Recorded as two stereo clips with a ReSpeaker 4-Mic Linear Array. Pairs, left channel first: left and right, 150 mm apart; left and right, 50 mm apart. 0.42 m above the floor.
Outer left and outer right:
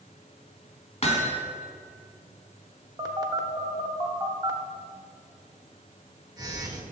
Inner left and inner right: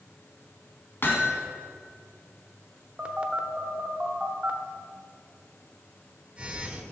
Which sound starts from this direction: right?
A phone buzzing, at 3.0 s.